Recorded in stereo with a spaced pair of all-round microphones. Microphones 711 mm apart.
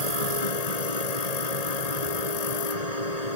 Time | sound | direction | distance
0.0 | a machine running | 60° left (ahead or behind) | ?